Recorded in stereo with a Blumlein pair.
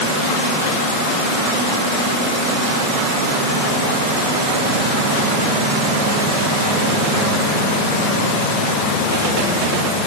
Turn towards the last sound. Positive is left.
No sound to turn to.